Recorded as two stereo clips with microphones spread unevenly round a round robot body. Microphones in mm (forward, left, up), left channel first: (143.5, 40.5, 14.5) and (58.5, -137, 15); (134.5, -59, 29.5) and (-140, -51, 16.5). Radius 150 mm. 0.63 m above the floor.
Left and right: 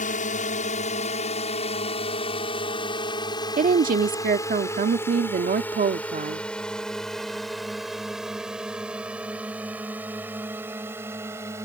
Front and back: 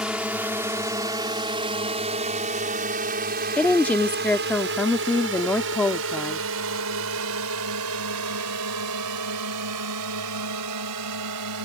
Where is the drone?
95° left; by 11.7 s 165° left.